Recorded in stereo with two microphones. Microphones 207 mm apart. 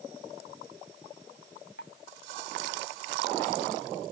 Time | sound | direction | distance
1.8 | dripping | 65° left (ahead or behind) | ?